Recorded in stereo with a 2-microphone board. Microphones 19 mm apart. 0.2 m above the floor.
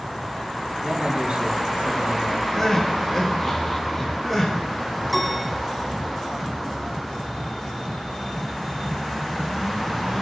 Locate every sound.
0.8 s a man speaking: 65° right (ahead or behind), 6.5 m
2.5 s crying: 10° left (ahead or behind), 6.5 m
5.1 s a piano: 5° left (ahead or behind), 5.5 m